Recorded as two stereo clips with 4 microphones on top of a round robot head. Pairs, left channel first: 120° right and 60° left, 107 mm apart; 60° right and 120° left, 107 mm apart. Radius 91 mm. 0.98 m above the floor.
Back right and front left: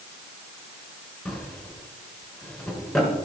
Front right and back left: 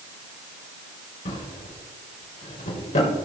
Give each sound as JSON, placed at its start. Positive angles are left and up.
{"t": 1.2, "sound": "a drawer", "azimuth_deg": -35, "distance_m": 3.0}